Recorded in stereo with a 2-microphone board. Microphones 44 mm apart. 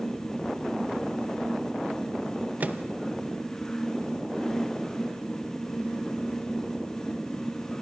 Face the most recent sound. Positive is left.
turn(degrees=-40)  # may be behind; listen again after turning